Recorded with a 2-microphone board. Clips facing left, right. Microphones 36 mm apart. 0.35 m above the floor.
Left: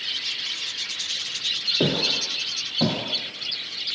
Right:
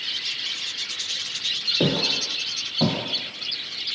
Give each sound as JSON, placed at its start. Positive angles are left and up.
{"t": 1.8, "sound": "footsteps", "side_deg": 5, "distance_m": 1.6}